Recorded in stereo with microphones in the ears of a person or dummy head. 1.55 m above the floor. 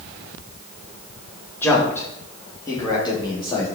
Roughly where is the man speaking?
Centre.